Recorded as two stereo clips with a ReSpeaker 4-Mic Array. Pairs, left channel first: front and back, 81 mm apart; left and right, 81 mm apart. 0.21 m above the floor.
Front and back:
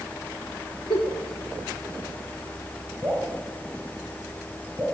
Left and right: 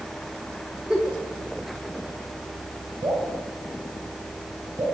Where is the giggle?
5° right, 1.9 m.